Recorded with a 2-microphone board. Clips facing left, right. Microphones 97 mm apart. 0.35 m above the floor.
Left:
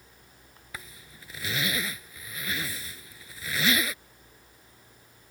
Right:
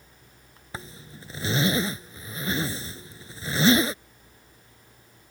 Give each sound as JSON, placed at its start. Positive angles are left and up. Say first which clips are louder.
{"t": 0.7, "sound": "a zipper", "louder": "right 5 dB", "side_deg": -30}